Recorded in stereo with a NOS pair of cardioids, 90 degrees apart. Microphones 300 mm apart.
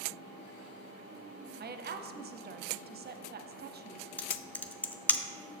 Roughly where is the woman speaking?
Ahead right.